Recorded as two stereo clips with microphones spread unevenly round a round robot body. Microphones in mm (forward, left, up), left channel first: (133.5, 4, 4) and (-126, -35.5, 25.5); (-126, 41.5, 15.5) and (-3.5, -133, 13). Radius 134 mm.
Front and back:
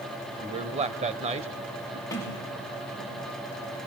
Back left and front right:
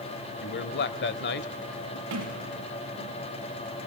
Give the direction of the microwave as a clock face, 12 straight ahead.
No microwave in this recording.